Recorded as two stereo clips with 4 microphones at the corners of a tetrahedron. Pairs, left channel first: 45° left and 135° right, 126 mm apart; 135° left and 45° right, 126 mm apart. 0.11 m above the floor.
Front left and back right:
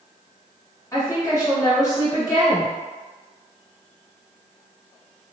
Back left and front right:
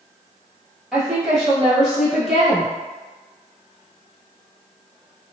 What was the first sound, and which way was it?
A woman speaking, 40° left.